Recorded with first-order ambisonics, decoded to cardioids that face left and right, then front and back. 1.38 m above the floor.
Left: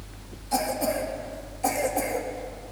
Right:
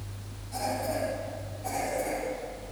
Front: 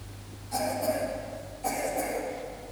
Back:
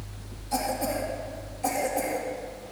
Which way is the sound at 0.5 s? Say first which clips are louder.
Left 5 dB, even; 115° left.